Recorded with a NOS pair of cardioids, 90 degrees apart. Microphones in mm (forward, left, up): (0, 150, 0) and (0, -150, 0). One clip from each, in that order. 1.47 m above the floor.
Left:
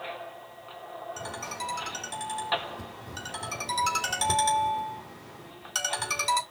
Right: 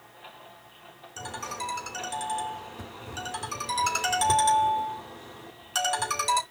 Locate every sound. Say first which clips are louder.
1.2 s a ringtone: right 3 dB; straight ahead, 2.5 m